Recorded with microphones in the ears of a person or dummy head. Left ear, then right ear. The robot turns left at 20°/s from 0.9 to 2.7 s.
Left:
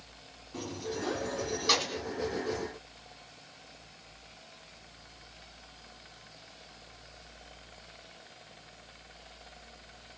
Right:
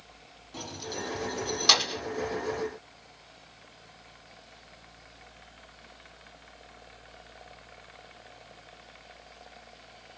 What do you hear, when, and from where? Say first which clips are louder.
0.5 s keys jangling: even; 35° right (ahead or behind), 1.0 m; by 2.0 s 50° right (ahead or behind), 1.0 m